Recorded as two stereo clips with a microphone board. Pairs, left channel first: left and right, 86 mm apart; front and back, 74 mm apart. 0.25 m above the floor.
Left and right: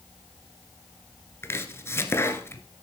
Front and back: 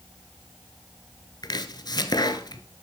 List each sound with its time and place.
1.4 s chopping: 30° left, 1.0 m